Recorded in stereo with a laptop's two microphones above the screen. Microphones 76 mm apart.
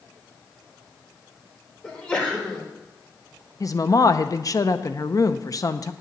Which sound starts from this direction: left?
A woman speaking, at 3.6 s.